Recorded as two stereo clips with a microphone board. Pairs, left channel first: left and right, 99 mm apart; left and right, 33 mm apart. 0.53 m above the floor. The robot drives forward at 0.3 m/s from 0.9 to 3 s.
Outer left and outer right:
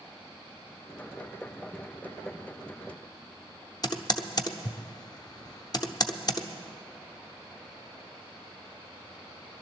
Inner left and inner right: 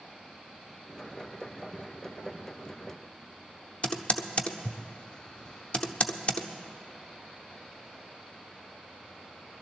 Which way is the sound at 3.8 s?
40° left (ahead or behind).